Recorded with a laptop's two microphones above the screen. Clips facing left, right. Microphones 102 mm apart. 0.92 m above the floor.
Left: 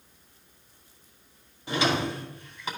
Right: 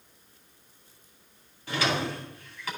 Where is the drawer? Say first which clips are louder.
Left 2 dB; 20° left (ahead or behind), 2 m.